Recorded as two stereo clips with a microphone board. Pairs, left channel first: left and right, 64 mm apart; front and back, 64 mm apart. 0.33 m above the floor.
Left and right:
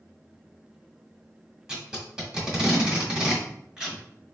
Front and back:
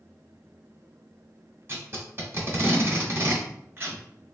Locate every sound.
1.7 s tape being pulled: 165° right, 1.0 m